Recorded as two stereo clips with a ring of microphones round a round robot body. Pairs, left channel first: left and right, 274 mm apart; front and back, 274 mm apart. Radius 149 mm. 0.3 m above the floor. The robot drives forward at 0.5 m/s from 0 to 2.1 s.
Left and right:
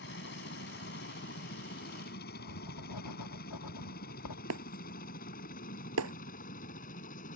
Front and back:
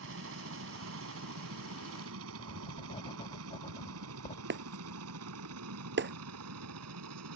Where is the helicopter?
140° left; by 7.4 s 150° left.